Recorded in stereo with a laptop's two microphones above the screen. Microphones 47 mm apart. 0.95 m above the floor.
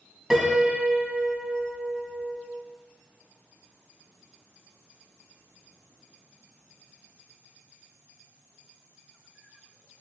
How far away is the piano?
About 1.6 m.